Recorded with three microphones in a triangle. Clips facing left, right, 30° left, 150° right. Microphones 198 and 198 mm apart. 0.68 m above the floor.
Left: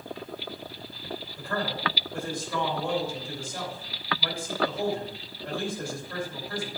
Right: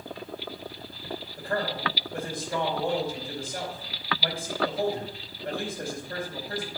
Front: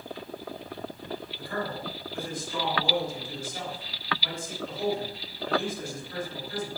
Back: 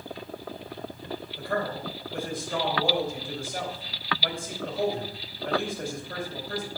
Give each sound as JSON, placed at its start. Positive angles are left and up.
{"t": 1.4, "sound": "a man speaking", "azimuth_deg": -160, "distance_m": 3.0}